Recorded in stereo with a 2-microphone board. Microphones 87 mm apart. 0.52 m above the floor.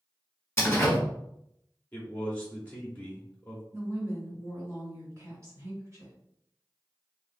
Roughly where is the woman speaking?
Right.